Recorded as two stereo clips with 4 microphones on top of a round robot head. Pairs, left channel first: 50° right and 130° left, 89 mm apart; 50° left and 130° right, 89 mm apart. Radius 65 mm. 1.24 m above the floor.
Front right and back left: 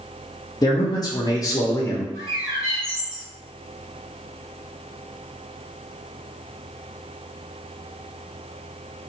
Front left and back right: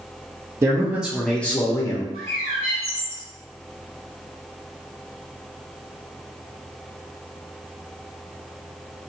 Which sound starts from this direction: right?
A man speaking, at 0.6 s.